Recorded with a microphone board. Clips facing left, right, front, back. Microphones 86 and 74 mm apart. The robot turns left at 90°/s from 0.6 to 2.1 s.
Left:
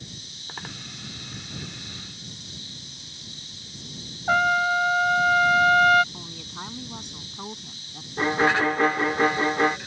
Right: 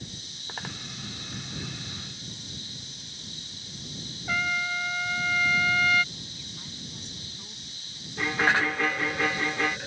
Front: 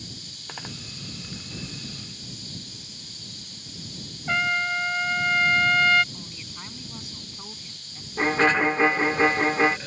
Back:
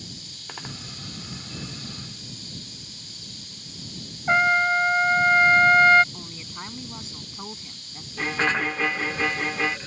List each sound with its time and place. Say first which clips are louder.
4.3 s a trumpet: left 9 dB, back 6 dB; 125° left
6.1 s a woman speaking: left 6 dB, back 3 dB; 115° left
8.2 s a violin: left 4 dB, front 4 dB; 55° left